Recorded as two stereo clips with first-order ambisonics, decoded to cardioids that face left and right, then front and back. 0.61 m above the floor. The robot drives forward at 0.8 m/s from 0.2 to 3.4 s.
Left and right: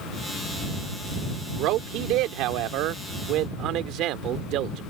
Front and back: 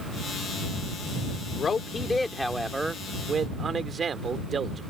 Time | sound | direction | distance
1.6 | a man speaking | 65° right | ?